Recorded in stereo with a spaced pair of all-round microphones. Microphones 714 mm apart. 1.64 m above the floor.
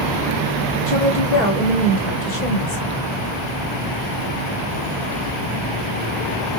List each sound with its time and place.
0.9 s a woman speaking: 55° left (ahead or behind), 1.5 m; by 2.9 s 90° left, 2 m